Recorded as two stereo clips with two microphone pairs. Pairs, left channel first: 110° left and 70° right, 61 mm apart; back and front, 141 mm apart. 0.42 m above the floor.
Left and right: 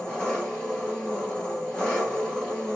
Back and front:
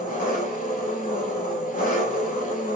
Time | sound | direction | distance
0.0 | an engine running | straight behind | 2 m